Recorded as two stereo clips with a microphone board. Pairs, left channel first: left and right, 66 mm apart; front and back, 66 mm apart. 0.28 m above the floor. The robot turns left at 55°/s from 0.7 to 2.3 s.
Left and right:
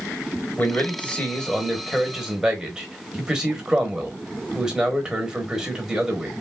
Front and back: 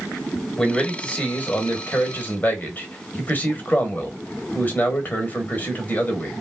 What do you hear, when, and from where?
0.6 s a man speaking: 65° left, 1.0 m; by 6.3 s 20° right, 1.0 m